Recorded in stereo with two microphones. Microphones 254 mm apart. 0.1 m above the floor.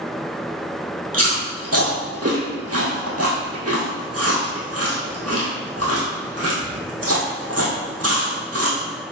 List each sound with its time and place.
1.1 s chewing: 70° right (ahead or behind), 1.9 m